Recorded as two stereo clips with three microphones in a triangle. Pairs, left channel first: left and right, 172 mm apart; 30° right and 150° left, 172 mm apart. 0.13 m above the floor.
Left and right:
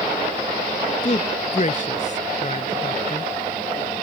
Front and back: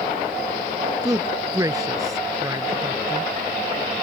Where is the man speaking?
90° left.